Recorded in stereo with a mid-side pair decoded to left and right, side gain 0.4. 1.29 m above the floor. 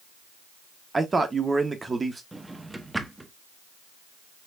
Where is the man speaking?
30° right, 1.1 m.